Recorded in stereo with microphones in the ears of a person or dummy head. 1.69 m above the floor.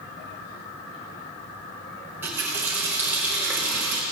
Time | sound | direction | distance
2.0 | a running tap | 10° right (ahead or behind) | 1.0 m